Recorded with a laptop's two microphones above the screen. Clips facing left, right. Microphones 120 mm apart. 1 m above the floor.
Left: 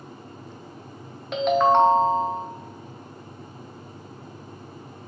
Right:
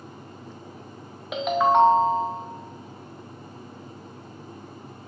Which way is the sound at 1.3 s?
5° right (ahead or behind).